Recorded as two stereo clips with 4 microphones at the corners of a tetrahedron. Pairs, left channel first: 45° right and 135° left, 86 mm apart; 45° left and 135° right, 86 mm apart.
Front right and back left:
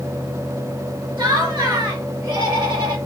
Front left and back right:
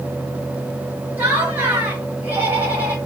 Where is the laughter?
160° left, 2.5 m.